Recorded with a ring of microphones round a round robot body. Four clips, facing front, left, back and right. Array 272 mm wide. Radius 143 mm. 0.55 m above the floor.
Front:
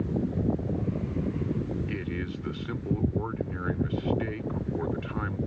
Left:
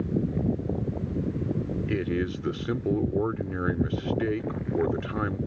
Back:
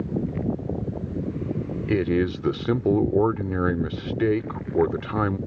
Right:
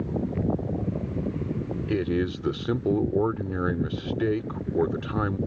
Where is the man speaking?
170° right.